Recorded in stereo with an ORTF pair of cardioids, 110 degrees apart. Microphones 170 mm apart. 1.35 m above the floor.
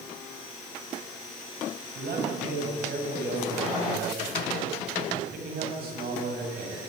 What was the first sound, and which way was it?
A man speaking, 60° right.